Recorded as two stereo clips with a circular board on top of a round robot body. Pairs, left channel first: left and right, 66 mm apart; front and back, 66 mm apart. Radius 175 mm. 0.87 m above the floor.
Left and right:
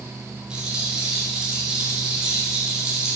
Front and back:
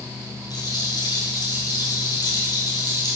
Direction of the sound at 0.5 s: 15° right.